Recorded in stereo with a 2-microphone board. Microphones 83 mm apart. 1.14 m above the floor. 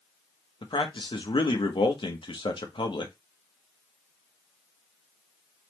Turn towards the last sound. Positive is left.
turn(degrees=85)